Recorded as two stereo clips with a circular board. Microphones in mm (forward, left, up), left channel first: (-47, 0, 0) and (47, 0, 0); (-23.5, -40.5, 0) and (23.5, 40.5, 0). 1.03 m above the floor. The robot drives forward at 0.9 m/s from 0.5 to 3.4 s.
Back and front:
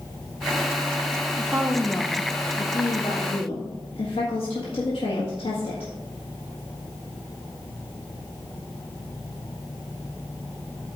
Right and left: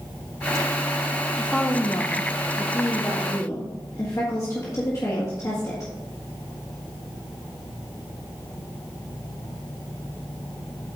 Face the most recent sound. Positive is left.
turn(degrees=-170)